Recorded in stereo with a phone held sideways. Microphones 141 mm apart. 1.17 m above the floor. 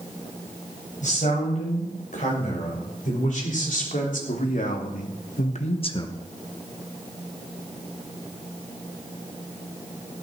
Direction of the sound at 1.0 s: 70° left (ahead or behind).